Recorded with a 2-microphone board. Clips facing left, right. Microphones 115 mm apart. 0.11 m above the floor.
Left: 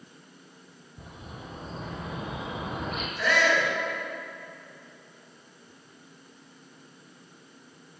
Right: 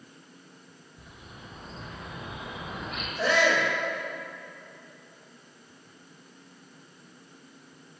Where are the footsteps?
I don't hear footsteps.